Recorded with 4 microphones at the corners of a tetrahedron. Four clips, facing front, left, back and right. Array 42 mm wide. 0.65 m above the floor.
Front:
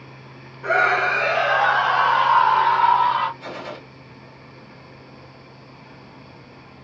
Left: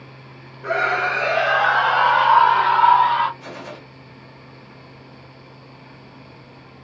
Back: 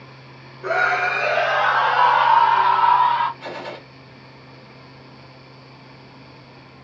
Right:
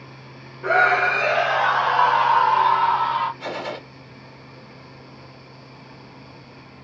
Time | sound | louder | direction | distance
0.6 | a scream | right 3 dB, front 1 dB | 70° right | 1.2 m
3.4 | a gunshot | right 6 dB, back 1 dB | 115° right | 1.4 m